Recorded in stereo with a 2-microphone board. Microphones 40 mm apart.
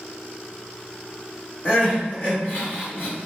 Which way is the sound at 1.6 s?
55° left (ahead or behind).